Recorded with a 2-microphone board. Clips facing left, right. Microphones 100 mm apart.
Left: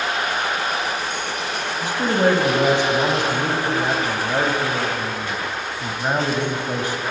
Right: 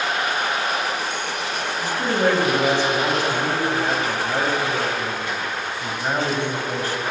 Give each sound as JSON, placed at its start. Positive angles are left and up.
{"t": 1.8, "sound": "a man speaking", "side_deg": 15, "distance_m": 1.2}